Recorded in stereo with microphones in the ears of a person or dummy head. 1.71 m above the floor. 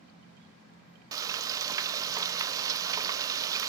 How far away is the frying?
About 0.6 m.